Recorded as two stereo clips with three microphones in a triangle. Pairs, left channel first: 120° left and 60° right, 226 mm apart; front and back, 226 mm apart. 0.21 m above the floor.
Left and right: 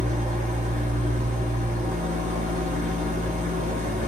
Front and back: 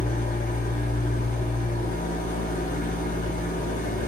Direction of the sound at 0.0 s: 25° right.